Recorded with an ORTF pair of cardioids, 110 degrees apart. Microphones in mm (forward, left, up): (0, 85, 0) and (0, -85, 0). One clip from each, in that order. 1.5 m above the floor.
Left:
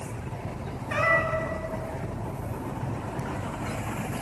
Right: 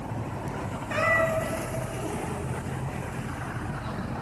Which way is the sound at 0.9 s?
5° left.